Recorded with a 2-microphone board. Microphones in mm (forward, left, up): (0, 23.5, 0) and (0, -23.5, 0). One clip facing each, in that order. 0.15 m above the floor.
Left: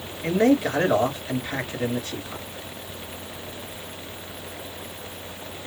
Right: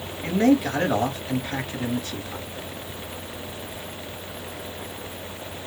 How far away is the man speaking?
About 2.0 m.